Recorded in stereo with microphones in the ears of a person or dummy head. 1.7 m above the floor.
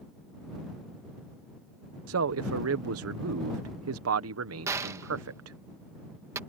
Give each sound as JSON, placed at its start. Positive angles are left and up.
{"t": 2.1, "sound": "a man speaking", "side_deg": -85}
{"t": 4.7, "sound": "a gunshot", "side_deg": -15}